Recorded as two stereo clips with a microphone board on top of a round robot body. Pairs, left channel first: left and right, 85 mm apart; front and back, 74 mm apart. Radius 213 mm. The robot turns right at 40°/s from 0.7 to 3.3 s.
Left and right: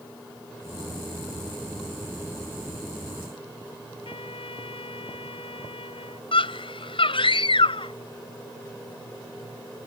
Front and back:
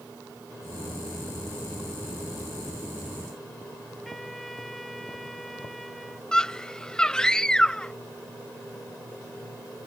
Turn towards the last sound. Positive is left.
turn(degrees=80)